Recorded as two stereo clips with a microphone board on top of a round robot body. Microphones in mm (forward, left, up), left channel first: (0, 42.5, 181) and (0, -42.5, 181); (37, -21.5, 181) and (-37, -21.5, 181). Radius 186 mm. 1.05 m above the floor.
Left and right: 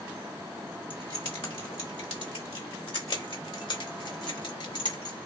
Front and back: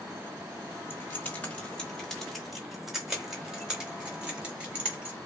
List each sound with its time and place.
0.9 s keys jangling: 60° left, 1.5 m; by 5.2 s 105° left, 4 m